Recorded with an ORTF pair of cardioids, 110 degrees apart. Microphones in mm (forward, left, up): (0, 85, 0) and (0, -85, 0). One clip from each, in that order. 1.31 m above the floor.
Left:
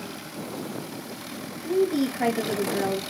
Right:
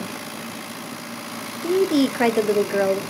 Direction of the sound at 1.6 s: 60° right.